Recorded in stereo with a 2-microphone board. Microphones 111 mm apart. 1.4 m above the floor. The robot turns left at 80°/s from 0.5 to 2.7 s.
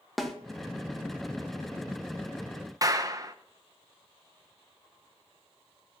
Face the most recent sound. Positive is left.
turn(degrees=-30)  # may be behind; listen again after turning